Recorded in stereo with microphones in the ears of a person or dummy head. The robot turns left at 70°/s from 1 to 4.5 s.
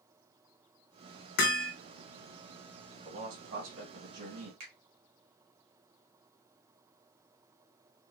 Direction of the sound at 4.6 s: 35° right (ahead or behind).